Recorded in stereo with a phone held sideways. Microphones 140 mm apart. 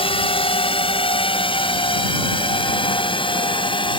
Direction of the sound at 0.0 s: 40° left (ahead or behind).